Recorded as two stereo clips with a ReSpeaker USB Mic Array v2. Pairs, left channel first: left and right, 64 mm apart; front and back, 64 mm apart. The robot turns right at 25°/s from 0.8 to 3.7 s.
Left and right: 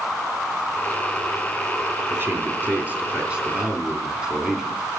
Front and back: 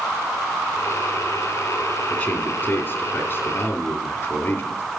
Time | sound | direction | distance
2.1 | a man speaking | 60° right | 2 m